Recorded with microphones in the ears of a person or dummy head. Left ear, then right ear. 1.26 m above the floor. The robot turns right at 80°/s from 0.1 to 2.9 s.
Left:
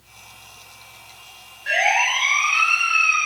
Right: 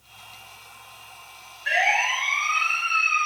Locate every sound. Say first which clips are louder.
1.7 s a siren: left 3 dB; 15° right (ahead or behind), 9.5 m; by 3.3 s 80° left, 10 m